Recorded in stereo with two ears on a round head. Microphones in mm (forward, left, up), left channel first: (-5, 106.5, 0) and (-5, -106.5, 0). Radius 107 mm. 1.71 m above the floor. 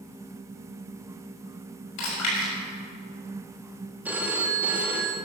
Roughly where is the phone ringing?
Centre.